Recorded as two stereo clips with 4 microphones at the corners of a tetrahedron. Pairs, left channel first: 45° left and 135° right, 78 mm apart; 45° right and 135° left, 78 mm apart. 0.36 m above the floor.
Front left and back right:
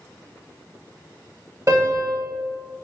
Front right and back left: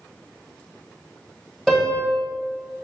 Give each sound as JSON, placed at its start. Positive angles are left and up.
{"t": 1.7, "sound": "a piano", "azimuth_deg": -130, "distance_m": 1.7}